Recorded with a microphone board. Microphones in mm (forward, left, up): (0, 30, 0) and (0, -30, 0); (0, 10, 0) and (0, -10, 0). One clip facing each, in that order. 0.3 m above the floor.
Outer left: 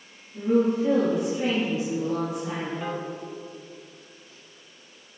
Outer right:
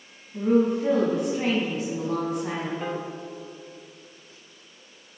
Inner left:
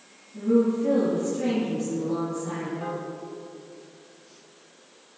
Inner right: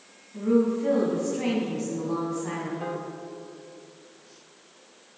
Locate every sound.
0.3 s a woman speaking: 45° right (ahead or behind), 2 m
2.8 s a piano: 10° right (ahead or behind), 0.7 m